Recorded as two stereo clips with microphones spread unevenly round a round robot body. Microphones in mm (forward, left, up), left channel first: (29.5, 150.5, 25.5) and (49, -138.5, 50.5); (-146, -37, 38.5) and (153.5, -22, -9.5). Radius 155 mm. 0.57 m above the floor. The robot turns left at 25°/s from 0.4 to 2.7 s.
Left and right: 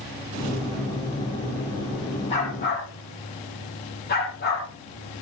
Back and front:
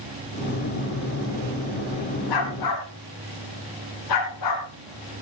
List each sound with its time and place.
2.3 s a dog barking: 165° left, 6.5 m; by 4.7 s 155° left, 6.5 m